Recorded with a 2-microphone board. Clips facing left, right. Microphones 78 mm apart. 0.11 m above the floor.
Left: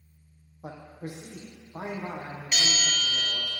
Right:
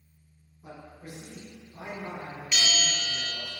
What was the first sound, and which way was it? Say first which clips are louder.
A man speaking: left 5 dB; 70° left (ahead or behind).